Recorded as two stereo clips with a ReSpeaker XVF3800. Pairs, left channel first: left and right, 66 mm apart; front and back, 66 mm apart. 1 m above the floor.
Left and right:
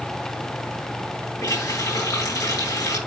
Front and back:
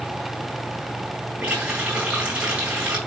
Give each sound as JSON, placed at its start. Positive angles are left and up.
{"t": 1.4, "sound": "a running tap", "azimuth_deg": 110, "distance_m": 7.5}